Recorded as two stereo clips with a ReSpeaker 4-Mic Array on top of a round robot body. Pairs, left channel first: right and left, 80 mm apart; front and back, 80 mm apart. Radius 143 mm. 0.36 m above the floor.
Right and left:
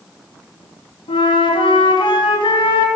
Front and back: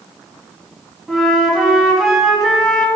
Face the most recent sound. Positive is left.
turn(degrees=-90)